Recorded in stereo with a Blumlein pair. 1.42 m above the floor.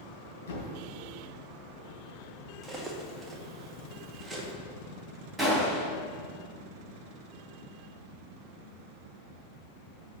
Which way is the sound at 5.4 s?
5° right.